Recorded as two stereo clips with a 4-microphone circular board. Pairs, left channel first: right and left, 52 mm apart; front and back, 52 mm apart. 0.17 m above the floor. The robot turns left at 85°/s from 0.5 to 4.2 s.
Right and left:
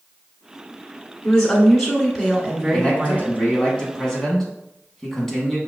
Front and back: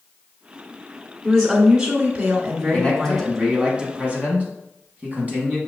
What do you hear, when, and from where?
1.2 s a woman speaking: 115° right, 1.0 m; by 3.3 s 70° left, 1.0 m
2.7 s a man speaking: 40° right, 1.1 m; by 5.6 s 170° right, 1.1 m